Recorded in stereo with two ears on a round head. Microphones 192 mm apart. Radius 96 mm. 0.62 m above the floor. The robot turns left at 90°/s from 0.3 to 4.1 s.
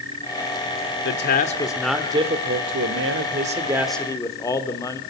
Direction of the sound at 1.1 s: 75° left.